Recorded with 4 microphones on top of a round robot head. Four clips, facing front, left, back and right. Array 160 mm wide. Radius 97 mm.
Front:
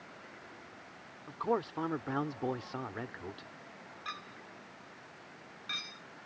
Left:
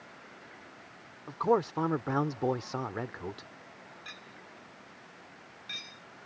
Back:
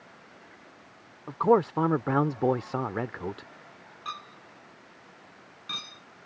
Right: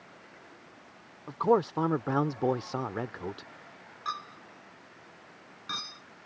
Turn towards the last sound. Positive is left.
turn(degrees=-130)